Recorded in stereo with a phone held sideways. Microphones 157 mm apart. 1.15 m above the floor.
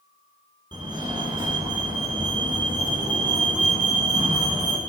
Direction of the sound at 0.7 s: 25° right (ahead or behind).